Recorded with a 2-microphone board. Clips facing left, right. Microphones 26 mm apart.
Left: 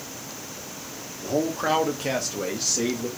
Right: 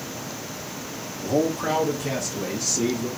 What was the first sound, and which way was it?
A man speaking, 5° left (ahead or behind).